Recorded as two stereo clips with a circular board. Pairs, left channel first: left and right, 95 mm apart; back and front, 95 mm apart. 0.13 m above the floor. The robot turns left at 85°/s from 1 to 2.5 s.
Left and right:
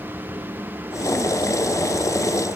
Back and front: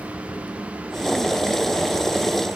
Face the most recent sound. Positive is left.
No sound to turn to.